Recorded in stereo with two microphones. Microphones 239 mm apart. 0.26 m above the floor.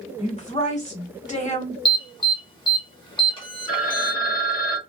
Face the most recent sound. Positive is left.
turn(degrees=35)  # may be behind; listen again after turning